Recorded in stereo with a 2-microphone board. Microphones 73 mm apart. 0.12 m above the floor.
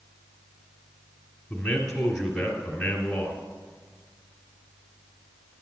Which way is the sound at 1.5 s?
10° left (ahead or behind).